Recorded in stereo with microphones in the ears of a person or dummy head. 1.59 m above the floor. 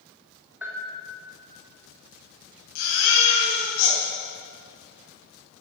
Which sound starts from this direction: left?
A baby crying, at 2.8 s.